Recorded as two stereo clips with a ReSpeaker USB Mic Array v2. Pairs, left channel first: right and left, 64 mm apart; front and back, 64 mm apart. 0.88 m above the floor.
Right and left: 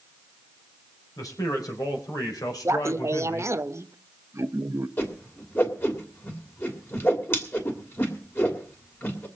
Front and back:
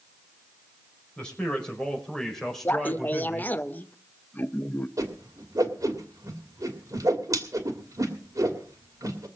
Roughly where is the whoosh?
Behind right.